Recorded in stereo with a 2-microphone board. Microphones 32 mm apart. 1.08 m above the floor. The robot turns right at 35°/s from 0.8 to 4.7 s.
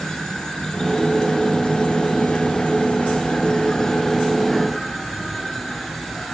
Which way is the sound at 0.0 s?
35° left.